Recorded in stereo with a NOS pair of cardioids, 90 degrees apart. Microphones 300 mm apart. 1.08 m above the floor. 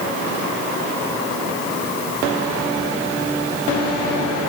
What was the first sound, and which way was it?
Only background noise.